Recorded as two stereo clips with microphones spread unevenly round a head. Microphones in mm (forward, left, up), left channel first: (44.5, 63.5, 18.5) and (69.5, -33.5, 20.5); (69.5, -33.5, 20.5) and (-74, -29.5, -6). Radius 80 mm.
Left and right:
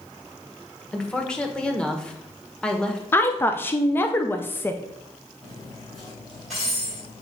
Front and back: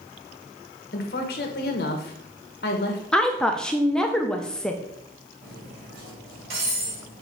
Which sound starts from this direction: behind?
Cutlery clinking, at 5.4 s.